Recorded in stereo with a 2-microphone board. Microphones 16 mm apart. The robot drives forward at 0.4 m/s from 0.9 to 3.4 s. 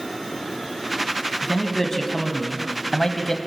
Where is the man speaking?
25° left (ahead or behind), 2.5 m; by 3.4 s 35° left (ahead or behind), 1.9 m.